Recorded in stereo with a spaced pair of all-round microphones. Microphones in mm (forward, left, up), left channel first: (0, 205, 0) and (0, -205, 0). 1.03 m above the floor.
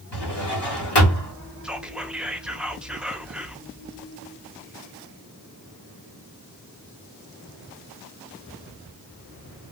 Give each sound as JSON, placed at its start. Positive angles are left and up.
{"t": 0.1, "sound": "a drawer", "side_deg": 70, "distance_m": 1.8}
{"t": 1.6, "sound": "whispering", "side_deg": 0, "distance_m": 0.7}